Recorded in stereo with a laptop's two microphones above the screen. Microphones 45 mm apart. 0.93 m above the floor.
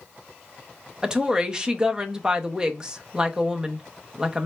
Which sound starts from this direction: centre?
A woman speaking, at 1.0 s.